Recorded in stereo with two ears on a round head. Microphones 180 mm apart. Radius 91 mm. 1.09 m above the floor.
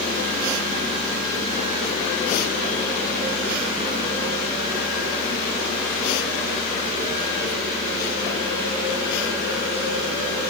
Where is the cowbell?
I don't hear a cowbell.